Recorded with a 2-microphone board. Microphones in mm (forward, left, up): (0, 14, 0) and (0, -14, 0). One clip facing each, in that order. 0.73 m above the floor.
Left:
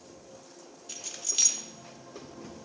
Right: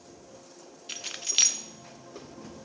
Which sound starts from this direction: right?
Keys jangling, at 0.9 s.